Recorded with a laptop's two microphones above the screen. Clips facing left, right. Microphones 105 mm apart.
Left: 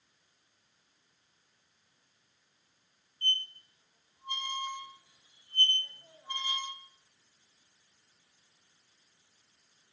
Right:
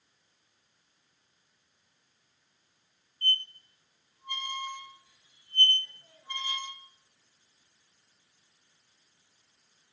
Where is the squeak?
20° left (ahead or behind), 1.3 m.